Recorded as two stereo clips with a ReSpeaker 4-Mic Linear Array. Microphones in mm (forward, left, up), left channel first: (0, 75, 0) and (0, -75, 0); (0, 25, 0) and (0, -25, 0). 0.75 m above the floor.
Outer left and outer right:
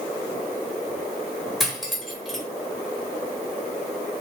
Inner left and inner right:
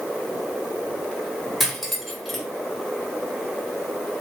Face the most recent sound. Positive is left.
turn(degrees=0)  # may be behind; listen again after turning